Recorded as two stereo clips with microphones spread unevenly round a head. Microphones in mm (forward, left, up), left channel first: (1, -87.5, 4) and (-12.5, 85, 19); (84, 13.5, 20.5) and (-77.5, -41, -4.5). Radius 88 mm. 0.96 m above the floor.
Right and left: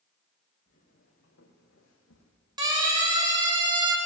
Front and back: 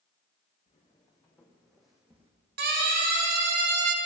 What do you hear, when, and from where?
0.7 s footsteps: 40° right, 3.5 m; by 2.3 s 85° right, 2.5 m
2.6 s a siren: 160° left, 3.5 m